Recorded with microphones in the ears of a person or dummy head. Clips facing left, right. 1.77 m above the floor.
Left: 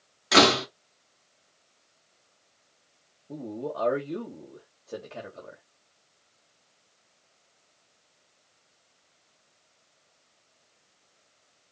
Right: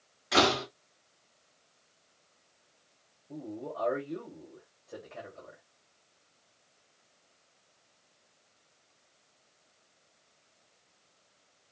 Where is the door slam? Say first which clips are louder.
Left 6 dB; 75° left (ahead or behind), 2 m.